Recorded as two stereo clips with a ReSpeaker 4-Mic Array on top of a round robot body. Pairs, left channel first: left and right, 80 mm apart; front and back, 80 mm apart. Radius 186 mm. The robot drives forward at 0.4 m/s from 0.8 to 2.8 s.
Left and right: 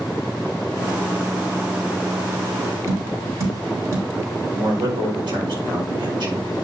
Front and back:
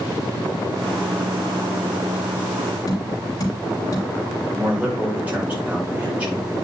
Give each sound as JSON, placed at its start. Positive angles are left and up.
{"t": 2.9, "sound": "tapping", "azimuth_deg": -40, "distance_m": 3.5}
{"t": 4.5, "sound": "a man speaking", "azimuth_deg": -110, "distance_m": 5.0}